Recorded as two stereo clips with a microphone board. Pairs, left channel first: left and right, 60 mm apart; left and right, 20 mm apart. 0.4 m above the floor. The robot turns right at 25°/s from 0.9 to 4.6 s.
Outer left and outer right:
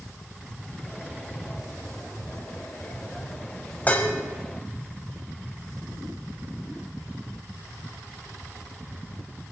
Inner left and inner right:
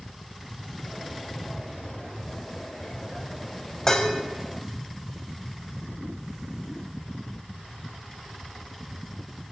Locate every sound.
3.9 s dishes clattering: 25° left (ahead or behind), 1.5 m; by 4.1 s 35° left (ahead or behind), 1.5 m